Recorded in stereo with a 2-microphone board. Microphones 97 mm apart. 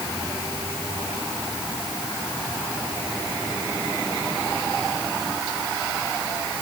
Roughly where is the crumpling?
I don't hear crumpling.